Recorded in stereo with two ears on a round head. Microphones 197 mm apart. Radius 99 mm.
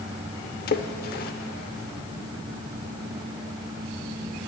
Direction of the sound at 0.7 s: 45° left (ahead or behind).